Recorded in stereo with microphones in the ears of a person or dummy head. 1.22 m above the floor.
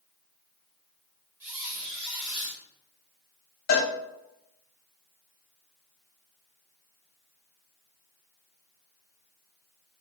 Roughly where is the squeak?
Centre.